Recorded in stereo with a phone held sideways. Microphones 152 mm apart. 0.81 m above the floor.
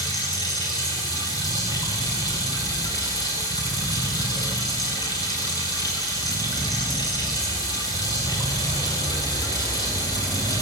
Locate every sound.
0.0 s running water: 25° left (ahead or behind), 7.5 m